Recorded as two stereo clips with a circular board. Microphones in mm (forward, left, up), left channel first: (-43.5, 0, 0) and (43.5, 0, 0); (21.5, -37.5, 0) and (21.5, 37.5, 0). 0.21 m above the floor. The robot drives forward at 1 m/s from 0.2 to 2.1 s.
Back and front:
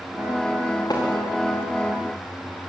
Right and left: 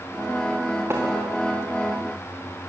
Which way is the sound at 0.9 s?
145° left.